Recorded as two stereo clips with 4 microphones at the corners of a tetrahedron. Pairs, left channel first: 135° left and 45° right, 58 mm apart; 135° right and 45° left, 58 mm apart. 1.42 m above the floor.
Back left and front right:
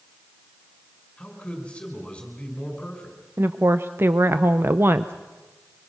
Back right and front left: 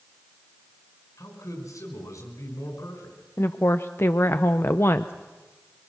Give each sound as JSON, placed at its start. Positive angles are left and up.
{"t": 1.2, "sound": "a man speaking", "azimuth_deg": -155, "distance_m": 5.5}
{"t": 3.4, "sound": "a woman speaking", "azimuth_deg": -95, "distance_m": 0.6}